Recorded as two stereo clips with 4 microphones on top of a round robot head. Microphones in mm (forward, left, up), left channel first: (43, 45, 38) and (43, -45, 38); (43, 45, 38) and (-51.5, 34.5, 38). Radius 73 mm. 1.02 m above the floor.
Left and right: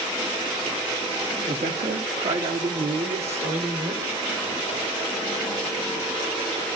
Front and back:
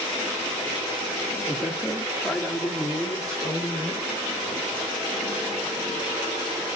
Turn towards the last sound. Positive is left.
turn(degrees=-85)